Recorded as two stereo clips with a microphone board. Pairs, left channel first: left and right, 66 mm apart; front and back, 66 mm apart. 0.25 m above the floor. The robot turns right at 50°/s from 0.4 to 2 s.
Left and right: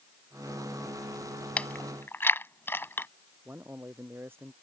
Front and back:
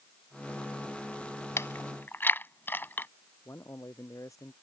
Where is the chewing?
25° left; by 3.1 s 45° left.